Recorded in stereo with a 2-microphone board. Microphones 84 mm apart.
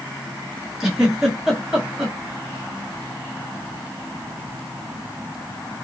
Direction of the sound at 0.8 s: 5° right (ahead or behind).